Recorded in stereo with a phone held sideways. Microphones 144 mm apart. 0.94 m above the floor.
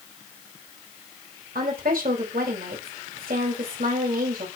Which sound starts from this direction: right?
A woman speaking, at 1.6 s.